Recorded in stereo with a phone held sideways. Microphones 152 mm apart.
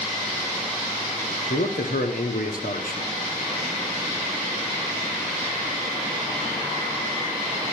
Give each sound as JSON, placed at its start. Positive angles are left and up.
{"t": 1.5, "sound": "a man speaking", "side_deg": 75, "distance_m": 1.0}